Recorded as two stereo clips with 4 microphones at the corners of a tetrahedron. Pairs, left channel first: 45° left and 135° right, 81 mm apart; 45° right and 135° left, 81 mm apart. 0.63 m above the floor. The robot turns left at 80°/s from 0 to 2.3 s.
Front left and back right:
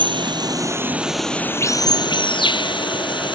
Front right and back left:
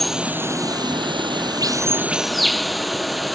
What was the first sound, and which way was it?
Running water, 130° right.